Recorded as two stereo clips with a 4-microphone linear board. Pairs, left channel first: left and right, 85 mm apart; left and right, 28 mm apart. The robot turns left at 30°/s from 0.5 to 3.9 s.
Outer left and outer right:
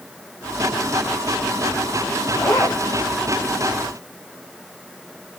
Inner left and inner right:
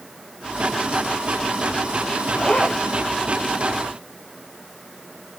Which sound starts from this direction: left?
A zipper, at 2.3 s.